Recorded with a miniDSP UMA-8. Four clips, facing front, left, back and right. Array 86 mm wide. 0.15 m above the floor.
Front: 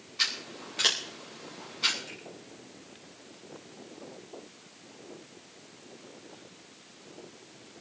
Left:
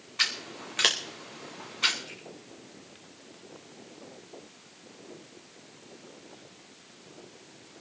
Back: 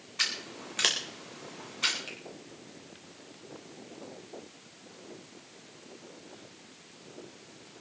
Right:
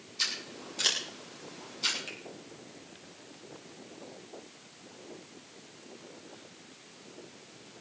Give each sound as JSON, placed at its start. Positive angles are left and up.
{"t": 0.2, "sound": "scissors", "azimuth_deg": 110, "distance_m": 3.5}
{"t": 2.1, "sound": "a finger snap", "azimuth_deg": -135, "distance_m": 5.0}